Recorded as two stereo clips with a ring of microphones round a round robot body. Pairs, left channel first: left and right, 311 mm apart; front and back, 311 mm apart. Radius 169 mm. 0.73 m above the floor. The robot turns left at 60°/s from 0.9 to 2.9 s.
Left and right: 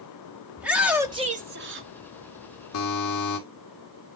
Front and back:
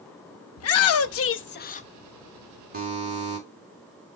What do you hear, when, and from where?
0.6 s a shout: 5° right, 0.9 m; by 1.9 s 65° right, 0.9 m
2.7 s a buzzer: 120° left, 2.5 m; by 3.4 s 110° left, 2.5 m